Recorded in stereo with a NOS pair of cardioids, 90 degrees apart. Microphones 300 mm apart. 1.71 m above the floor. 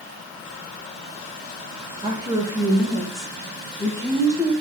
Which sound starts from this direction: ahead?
A woman speaking, at 2.0 s.